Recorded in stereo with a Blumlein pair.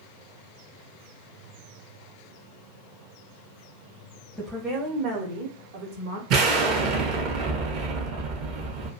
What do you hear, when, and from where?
4.4 s a woman speaking: straight ahead, 0.6 m; by 6.2 s 65° right, 1.1 m
6.3 s an explosion: 40° right, 0.7 m